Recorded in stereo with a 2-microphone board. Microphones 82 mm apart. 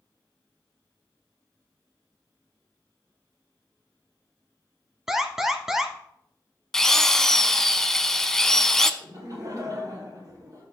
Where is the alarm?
5° right (ahead or behind), 1.1 m.